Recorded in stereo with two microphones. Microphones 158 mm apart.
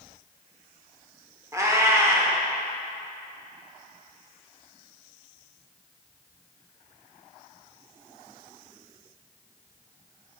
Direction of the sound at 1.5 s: 20° right (ahead or behind).